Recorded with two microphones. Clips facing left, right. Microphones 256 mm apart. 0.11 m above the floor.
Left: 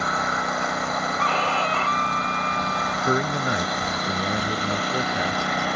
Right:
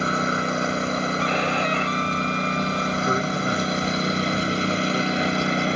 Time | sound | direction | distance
0.0 | a lawn mower | 30° right (ahead or behind) | ?
1.2 | a violin | 20° right (ahead or behind) | ?
3.0 | a man speaking | 20° left (ahead or behind) | ?